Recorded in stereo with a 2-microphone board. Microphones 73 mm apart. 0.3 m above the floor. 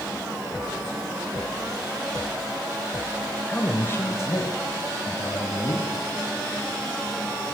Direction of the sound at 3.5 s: 20° left (ahead or behind).